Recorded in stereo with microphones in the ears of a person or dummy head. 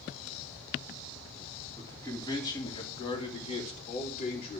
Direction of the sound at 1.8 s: 15° left (ahead or behind).